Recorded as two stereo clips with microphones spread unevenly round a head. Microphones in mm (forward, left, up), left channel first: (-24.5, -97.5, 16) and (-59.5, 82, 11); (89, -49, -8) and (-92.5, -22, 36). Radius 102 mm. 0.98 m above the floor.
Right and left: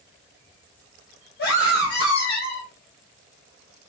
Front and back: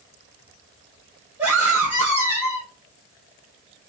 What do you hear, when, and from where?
1.4 s a scream: 105° right, 3.5 m